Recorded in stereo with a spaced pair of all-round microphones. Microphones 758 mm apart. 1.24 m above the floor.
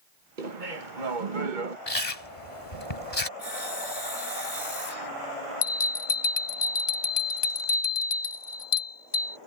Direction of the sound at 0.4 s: 80° right.